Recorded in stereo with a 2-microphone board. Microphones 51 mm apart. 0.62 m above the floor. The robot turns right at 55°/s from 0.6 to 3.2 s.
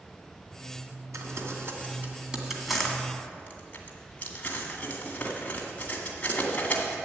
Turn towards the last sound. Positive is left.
turn(degrees=30)  # may be behind; listen again after turning